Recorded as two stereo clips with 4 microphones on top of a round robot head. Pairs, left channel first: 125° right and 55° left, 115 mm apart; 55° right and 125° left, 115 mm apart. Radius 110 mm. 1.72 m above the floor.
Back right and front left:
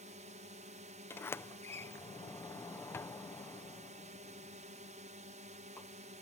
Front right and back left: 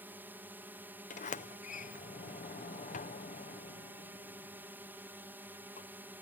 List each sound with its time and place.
0.0 s a drone: 55° left
1.1 s a sliding door: 55° right